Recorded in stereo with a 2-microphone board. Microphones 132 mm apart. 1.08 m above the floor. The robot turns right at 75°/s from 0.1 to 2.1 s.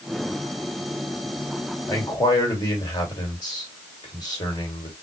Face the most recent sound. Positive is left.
turn(degrees=30)  # may be behind; listen again after turning